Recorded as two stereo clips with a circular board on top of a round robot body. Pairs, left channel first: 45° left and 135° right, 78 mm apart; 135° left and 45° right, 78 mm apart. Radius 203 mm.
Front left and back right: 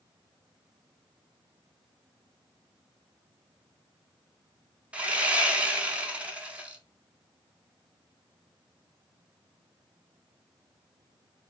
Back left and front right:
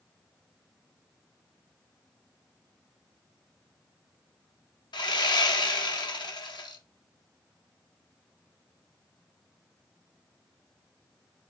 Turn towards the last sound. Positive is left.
turn(degrees=150)